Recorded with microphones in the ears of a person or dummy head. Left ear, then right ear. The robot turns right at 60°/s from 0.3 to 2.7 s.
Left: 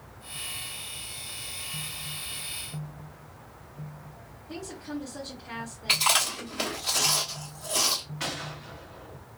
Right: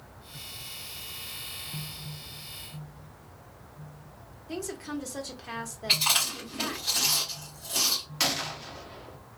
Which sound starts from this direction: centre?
Chewing, at 5.9 s.